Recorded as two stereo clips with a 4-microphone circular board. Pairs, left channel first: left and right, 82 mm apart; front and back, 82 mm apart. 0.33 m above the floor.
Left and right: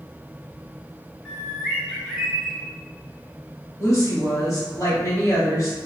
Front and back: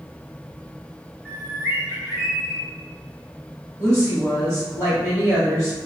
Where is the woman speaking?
125° left, 1.8 m.